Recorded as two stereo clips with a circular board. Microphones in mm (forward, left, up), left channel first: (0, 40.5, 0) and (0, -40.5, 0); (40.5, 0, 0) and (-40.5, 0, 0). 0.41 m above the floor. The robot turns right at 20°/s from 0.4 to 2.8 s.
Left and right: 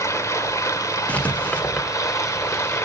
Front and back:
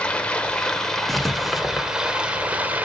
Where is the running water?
70° left, 1.1 m; by 2.9 s 120° left, 1.1 m.